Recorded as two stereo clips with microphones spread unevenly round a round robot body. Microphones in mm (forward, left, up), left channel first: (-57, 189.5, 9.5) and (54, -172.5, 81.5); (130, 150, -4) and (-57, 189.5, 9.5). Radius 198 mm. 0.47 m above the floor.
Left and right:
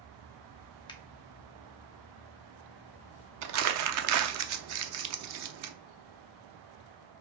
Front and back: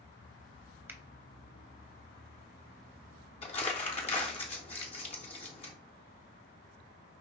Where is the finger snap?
95° left, 0.9 m.